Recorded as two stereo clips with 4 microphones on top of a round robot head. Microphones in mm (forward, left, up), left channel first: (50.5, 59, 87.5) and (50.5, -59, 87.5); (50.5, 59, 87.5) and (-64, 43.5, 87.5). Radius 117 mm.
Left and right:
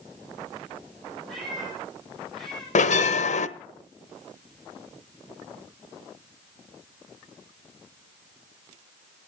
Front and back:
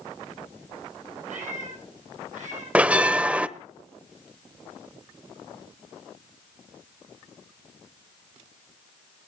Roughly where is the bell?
Left.